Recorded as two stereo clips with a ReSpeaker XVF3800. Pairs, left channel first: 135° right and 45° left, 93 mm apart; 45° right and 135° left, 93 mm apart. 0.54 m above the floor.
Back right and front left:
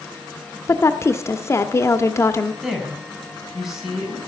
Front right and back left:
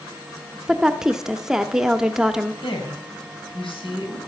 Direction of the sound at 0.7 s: 145° right.